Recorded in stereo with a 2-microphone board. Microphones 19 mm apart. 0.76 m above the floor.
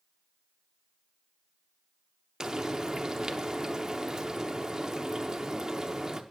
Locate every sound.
2.4 s frying: 35° right (ahead or behind), 0.7 m